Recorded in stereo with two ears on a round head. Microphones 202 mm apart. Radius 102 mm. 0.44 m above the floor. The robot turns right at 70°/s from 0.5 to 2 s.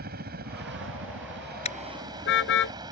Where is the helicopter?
125° right; by 2.9 s 20° right.